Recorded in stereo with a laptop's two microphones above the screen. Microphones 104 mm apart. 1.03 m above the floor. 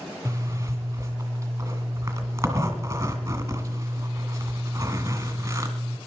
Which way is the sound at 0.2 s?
25° right (ahead or behind).